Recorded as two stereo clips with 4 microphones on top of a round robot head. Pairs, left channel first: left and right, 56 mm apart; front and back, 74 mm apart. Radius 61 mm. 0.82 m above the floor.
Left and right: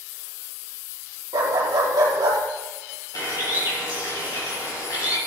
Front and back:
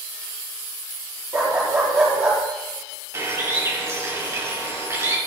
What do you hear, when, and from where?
1.3 s a dog barking: 115° right, 4.5 m
3.1 s a bird: 125° left, 5.5 m